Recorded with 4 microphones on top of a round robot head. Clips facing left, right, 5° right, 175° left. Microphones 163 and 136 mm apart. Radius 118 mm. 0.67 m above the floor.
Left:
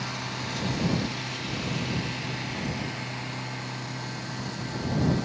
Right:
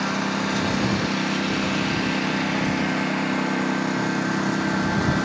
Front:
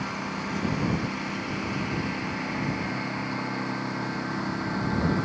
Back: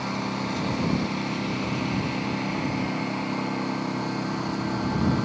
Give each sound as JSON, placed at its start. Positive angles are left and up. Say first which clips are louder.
{"t": 0.0, "sound": "a lawn mower", "louder": "right 11 dB, back 4 dB", "azimuth_deg": -115}